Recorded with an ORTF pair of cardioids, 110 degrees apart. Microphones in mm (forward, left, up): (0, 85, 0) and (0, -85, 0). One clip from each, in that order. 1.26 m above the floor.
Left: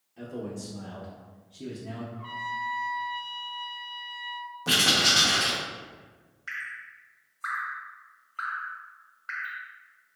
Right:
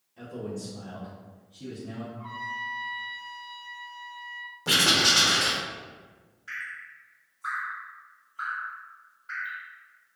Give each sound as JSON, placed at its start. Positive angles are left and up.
{"t": 0.2, "sound": "a man speaking", "azimuth_deg": 10, "distance_m": 0.9}
{"t": 2.1, "sound": "a trumpet", "azimuth_deg": 55, "distance_m": 1.1}
{"t": 4.7, "sound": "writing", "azimuth_deg": 0, "distance_m": 0.6}
{"t": 6.5, "sound": "dripping", "azimuth_deg": 65, "distance_m": 1.2}